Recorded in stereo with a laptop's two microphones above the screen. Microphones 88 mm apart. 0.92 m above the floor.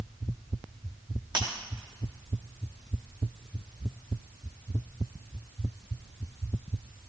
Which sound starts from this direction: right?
Breaking glass, at 1.4 s.